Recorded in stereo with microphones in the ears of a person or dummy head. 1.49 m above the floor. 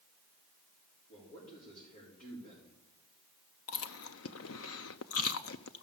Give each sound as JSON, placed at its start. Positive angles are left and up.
{"t": 1.1, "sound": "a man speaking", "side_deg": 50, "distance_m": 5.0}
{"t": 3.7, "sound": "chewing", "side_deg": 70, "distance_m": 0.7}